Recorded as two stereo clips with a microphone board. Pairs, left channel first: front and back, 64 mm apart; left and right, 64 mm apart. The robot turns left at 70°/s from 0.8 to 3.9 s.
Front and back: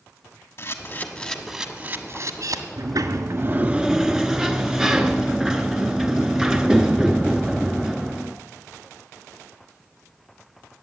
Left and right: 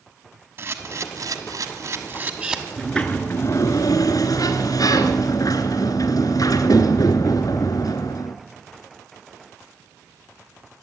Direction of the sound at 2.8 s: Straight behind.